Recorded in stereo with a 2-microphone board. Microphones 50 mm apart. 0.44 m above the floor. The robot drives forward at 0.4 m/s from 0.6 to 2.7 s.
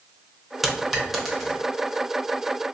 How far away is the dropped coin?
About 0.7 m.